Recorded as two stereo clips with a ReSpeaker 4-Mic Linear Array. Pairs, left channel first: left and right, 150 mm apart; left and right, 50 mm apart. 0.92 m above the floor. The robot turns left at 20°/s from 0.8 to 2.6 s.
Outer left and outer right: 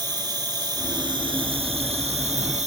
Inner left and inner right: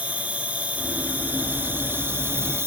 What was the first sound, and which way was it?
An insect, 35° right.